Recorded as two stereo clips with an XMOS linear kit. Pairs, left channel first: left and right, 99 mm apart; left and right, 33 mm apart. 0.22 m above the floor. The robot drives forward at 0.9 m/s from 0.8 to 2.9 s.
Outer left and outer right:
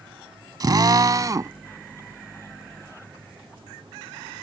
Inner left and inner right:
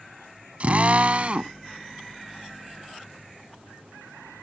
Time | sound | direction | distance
0.6 | a drill | 40° right (ahead or behind) | ?